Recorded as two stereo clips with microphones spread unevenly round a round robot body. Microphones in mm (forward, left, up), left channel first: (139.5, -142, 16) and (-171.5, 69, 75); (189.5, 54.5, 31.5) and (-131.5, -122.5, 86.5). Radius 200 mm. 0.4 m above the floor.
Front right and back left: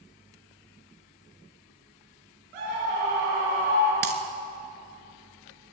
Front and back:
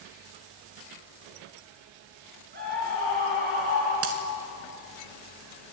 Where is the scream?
140° left, 6.5 m.